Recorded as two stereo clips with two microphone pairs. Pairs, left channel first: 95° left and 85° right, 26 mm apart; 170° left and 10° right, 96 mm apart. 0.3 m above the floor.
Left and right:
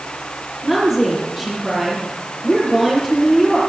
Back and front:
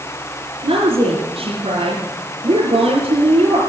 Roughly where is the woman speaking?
Ahead.